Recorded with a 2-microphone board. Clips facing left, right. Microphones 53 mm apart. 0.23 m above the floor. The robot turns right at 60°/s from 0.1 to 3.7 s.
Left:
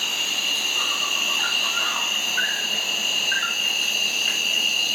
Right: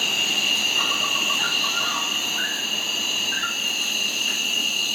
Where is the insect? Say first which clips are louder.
Right 2 dB; 80° right, 1.5 m; by 5.0 s 135° left, 1.5 m.